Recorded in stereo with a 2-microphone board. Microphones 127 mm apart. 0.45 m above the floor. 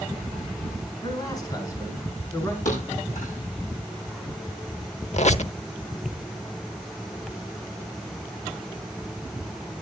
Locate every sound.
1.0 s a man speaking: 30° left (ahead or behind), 5 m; by 2.5 s 20° left (ahead or behind), 6 m
2.6 s a thud: 65° left (ahead or behind), 9.5 m
5.1 s a squeak: 55° left (ahead or behind), 0.8 m